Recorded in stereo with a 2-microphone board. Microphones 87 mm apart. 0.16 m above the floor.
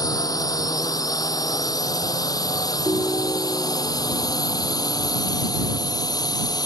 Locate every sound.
0.0 s a drone: 45° left (ahead or behind); by 6.7 s 50° left (ahead or behind)
2.9 s a ringtone: 30° right (ahead or behind)